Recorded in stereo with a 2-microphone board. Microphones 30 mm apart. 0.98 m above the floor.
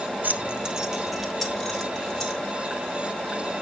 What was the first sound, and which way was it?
Keys jangling, 65° right (ahead or behind).